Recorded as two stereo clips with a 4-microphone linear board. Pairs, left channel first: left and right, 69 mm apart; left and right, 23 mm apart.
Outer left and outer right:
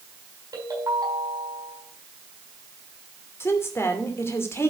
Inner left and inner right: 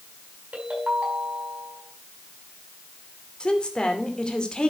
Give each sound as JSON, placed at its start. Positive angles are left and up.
{"t": 0.5, "sound": "a ringtone", "side_deg": -65, "distance_m": 5.0}
{"t": 3.4, "sound": "a woman speaking", "side_deg": 40, "distance_m": 2.5}